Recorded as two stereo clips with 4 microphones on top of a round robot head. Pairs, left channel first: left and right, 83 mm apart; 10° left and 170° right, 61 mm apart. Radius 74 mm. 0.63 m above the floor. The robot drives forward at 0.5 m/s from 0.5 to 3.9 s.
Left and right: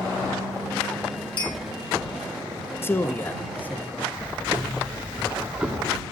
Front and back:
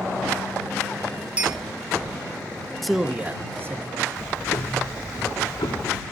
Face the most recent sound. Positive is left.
turn(degrees=-15)